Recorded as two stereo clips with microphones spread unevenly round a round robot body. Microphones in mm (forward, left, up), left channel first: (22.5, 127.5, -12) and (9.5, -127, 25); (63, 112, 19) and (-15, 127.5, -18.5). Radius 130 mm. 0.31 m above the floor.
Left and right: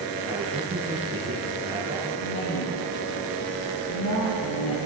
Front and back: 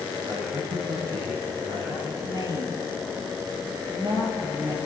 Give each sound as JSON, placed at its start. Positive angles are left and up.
{"t": 0.2, "sound": "a man speaking", "azimuth_deg": -165, "distance_m": 6.5}
{"t": 2.2, "sound": "a woman speaking", "azimuth_deg": 125, "distance_m": 8.0}